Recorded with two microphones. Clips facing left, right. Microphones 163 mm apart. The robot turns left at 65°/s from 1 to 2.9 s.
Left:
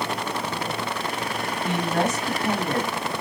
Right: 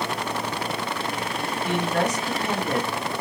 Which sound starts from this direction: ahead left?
A woman speaking, at 1.6 s.